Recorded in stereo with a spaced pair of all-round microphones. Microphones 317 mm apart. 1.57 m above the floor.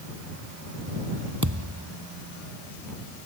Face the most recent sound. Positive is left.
turn(degrees=-65)  # may be behind; listen again after turning